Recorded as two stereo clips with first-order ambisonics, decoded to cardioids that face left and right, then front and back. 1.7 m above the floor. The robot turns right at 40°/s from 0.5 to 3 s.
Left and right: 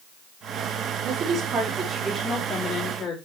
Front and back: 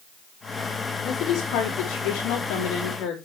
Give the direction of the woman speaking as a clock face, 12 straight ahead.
2 o'clock.